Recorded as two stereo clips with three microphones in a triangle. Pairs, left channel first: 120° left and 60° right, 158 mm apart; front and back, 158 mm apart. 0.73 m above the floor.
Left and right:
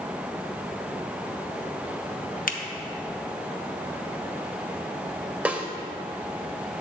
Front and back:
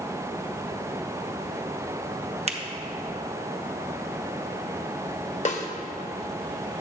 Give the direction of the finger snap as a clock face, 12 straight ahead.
7 o'clock.